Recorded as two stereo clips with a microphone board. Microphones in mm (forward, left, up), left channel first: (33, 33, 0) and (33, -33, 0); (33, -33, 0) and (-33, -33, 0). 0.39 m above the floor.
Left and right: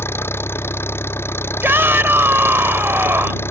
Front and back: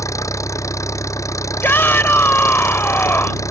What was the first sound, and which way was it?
An engine running, 35° left.